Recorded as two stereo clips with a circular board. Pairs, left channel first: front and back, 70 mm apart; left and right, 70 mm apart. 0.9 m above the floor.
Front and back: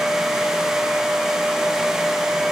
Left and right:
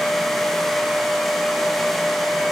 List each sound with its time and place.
Only background noise.